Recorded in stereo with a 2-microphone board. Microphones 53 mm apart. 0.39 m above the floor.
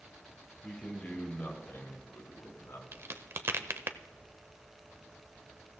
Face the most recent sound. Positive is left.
turn(degrees=-50)  # may be behind; listen again after turning